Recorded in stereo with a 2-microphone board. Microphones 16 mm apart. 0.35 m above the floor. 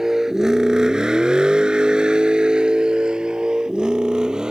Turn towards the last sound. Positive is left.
turn(degrees=-55)  # may be behind; listen again after turning